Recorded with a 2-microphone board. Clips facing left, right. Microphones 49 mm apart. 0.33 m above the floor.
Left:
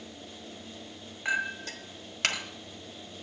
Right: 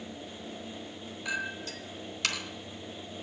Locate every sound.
1.2 s a clink: 45° left (ahead or behind), 1.4 m